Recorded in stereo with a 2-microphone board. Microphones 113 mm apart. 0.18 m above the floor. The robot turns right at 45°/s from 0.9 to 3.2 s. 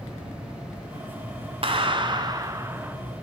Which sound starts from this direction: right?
A clap, at 1.6 s.